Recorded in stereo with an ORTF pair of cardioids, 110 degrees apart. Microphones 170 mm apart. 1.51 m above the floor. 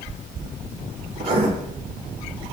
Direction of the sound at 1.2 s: 60° right.